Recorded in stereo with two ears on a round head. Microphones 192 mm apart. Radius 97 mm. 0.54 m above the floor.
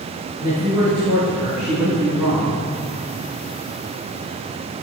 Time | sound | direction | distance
0.4 | a man speaking | 15° right (ahead or behind) | 5 m